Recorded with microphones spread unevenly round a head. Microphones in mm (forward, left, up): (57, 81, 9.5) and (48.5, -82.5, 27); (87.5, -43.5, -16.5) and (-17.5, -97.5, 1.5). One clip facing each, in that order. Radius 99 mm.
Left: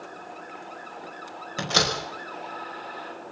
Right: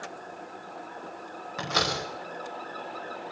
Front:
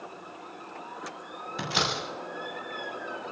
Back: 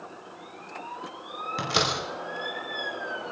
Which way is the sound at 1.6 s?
155° left.